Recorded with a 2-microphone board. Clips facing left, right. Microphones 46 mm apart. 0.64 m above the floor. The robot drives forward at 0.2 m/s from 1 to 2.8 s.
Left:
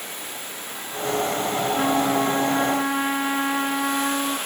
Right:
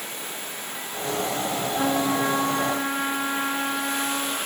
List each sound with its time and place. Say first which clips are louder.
1.7 s a trumpet: left 1 dB; 50° left (ahead or behind), 5.5 m; by 4.4 s 45° left (ahead or behind), 6 m